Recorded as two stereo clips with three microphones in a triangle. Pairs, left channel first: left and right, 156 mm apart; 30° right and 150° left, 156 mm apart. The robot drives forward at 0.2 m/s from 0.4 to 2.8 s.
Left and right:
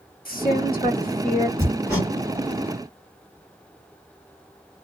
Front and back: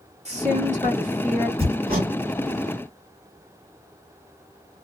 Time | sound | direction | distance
0.2 | a woman speaking | 105° left | 1.6 m
1.6 | hammering | 155° left | 1.7 m